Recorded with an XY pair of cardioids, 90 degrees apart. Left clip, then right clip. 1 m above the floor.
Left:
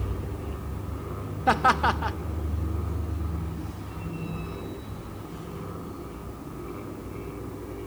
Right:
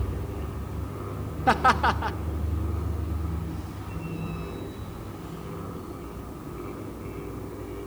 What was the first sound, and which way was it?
Laughter, straight ahead.